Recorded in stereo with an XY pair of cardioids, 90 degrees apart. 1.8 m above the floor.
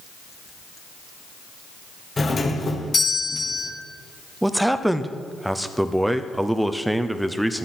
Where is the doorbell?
35° left, 1.5 m.